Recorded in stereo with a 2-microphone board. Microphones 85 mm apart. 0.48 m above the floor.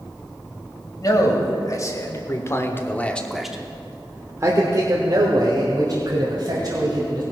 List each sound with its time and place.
1.0 s a man speaking: 45° left (ahead or behind), 2 m; by 7.2 s 50° right (ahead or behind), 3.5 m